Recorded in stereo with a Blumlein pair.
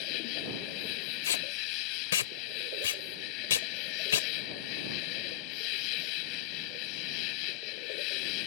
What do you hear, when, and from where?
0.0 s an insect: 45° left
1.2 s tape being pulled: 60° left